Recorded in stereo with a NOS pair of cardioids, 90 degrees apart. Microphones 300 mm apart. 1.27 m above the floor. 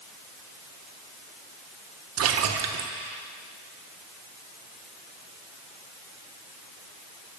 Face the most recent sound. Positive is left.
turn(degrees=-55)